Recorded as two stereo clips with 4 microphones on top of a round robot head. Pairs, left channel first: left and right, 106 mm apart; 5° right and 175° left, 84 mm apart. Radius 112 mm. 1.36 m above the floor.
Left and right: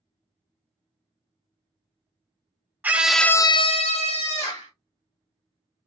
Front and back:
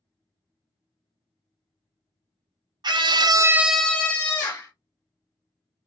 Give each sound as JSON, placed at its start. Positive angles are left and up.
{"t": 2.8, "sound": "a scream", "azimuth_deg": -165, "distance_m": 0.8}